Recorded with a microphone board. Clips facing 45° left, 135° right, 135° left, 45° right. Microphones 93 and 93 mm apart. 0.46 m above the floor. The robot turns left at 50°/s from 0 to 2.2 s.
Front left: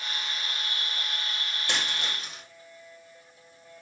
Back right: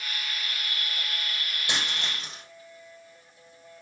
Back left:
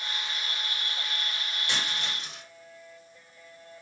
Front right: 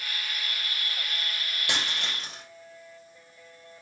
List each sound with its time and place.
1.7 s a dropped coin: 60° right, 6 m; by 2.4 s 85° right, 6 m